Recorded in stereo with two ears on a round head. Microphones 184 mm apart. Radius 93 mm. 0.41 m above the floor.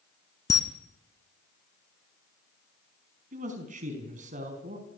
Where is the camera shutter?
15° left (ahead or behind), 1.6 m.